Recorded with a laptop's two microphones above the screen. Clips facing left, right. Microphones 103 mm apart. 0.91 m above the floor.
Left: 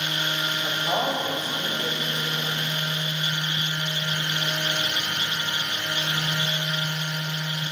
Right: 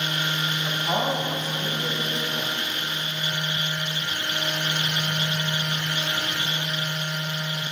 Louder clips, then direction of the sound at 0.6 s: Even; 20° left (ahead or behind).